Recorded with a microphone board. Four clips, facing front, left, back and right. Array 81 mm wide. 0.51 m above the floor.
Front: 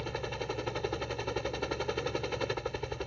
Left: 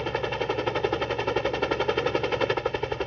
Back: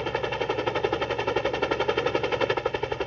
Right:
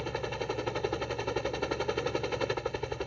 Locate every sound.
0.0 s a helicopter: 145° left